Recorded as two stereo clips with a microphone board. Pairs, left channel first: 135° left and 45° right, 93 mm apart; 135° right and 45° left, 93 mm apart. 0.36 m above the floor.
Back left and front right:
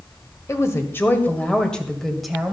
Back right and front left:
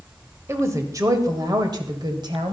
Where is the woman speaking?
90° left, 1.7 m; by 2.5 s 40° left, 1.9 m.